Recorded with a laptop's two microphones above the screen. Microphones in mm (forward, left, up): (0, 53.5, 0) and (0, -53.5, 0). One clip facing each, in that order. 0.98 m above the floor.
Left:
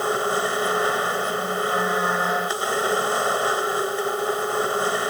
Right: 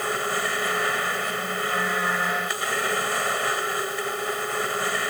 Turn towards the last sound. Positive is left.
turn(degrees=25)  # may be behind; listen again after turning